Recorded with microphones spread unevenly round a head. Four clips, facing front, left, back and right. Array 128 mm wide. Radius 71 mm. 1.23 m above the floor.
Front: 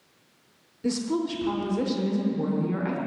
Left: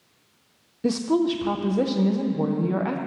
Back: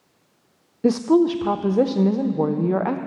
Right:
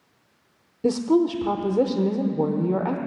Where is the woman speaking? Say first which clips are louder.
Right 2 dB, back 10 dB; 165° right, 0.6 m.